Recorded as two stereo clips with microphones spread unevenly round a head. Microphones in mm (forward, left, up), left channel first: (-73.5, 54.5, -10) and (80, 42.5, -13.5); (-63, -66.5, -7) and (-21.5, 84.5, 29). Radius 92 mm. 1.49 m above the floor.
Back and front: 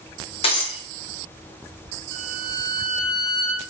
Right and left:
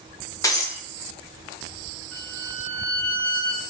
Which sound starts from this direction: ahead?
A violin, at 2.1 s.